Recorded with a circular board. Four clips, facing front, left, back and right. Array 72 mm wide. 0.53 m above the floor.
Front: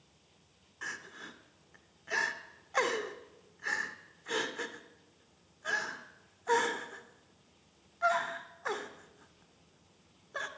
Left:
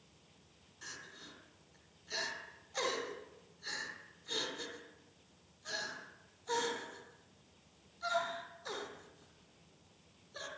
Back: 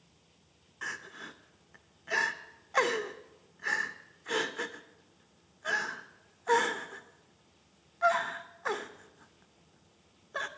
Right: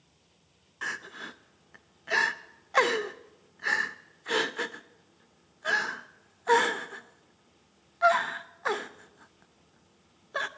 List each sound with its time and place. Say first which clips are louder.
0.8 s crying: right 15 dB, back 2 dB; 100° right, 0.7 m